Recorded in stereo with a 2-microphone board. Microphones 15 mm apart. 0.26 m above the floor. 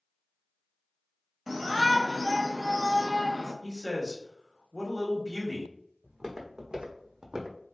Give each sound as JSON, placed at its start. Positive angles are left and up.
{"t": 1.5, "sound": "a shout", "side_deg": -15, "distance_m": 1.0}
{"t": 3.6, "sound": "a man speaking", "side_deg": 25, "distance_m": 1.5}
{"t": 6.0, "sound": "footsteps", "side_deg": -50, "distance_m": 1.4}